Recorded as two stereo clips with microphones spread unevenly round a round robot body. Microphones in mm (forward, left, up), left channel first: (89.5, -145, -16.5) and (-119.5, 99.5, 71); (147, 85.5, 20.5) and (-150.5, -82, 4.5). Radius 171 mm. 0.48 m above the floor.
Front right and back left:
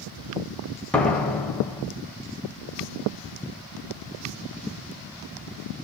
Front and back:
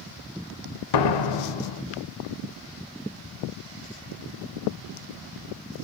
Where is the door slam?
30° left, 1.5 m.